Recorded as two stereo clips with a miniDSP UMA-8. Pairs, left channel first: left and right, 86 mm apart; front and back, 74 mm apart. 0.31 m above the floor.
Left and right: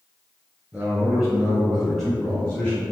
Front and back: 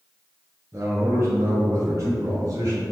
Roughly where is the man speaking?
Behind right.